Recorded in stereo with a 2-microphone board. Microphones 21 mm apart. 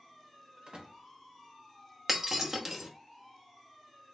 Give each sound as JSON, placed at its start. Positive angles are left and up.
{"t": 0.7, "sound": "a door slam", "side_deg": -60, "distance_m": 1.1}
{"t": 2.1, "sound": "breaking glass", "side_deg": -30, "distance_m": 0.9}